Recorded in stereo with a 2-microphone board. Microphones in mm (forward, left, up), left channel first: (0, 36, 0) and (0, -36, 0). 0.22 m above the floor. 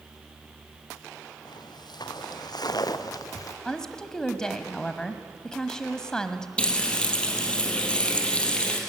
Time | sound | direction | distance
1.4 | footsteps | 75° left (ahead or behind) | 3 m
3.6 | a woman speaking | 10° left (ahead or behind) | 1.1 m
6.6 | frying | 15° left (ahead or behind) | 3.5 m